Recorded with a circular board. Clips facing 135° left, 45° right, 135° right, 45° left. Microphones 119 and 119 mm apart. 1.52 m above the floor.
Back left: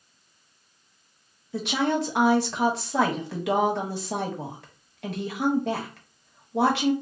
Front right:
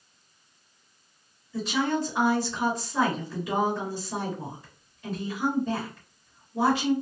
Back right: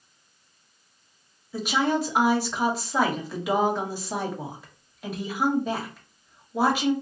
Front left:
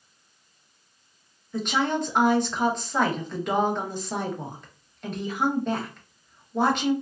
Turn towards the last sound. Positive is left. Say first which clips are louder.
# back left 2 dB, back right 1 dB
turn(degrees=140)